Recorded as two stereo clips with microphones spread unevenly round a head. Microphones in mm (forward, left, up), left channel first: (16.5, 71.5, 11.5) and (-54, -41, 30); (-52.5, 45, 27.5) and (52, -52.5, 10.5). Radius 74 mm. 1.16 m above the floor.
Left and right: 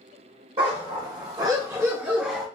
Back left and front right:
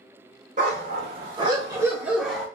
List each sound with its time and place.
0.6 s a dog barking: 80° right, 1.2 m; by 2.5 s 175° left, 0.7 m